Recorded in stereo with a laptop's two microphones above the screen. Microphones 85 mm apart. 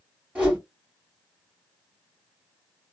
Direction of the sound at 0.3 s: 15° right (ahead or behind).